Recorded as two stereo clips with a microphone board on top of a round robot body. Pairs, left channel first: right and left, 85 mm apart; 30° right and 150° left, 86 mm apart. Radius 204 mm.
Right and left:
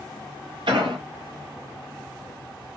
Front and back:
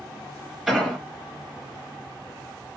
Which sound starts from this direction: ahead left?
An explosion, at 0.7 s.